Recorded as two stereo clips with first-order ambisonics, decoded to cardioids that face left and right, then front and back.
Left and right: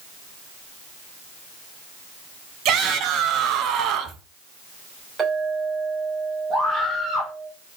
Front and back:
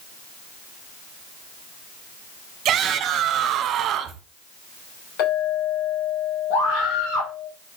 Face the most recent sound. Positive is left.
turn(degrees=-15)